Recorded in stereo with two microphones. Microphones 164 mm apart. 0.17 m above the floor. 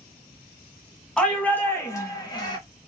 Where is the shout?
5° left (ahead or behind), 1.2 m; by 2.6 s 30° left (ahead or behind), 1.3 m.